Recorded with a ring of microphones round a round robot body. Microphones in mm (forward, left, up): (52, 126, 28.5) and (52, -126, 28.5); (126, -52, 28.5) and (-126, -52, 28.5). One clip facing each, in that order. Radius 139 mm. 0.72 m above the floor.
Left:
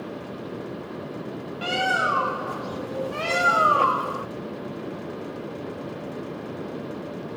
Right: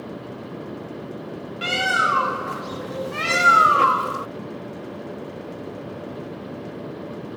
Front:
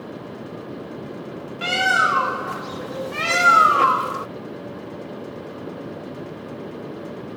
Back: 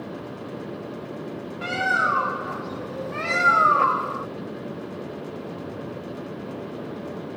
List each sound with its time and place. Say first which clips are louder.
1.6 s a bird: left 1 dB, front 3 dB; 30° right